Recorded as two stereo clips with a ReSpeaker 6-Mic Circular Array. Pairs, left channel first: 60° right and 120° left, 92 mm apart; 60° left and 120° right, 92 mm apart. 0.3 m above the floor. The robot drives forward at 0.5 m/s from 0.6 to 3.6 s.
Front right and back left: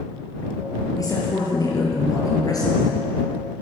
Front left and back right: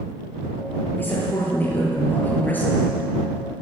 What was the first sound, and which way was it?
A woman speaking, 10° right.